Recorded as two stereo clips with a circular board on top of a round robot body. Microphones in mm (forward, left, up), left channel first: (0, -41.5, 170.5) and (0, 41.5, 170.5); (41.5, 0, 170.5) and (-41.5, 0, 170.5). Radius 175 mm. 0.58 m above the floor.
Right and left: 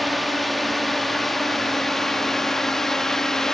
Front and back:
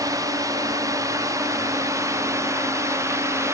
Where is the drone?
Straight behind; by 3.5 s 170° right.